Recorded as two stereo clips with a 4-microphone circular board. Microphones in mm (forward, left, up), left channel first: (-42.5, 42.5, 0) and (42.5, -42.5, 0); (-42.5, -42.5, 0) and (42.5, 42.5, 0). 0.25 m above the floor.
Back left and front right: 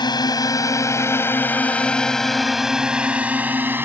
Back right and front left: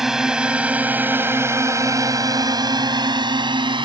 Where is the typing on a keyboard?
No typing on a keyboard in this recording.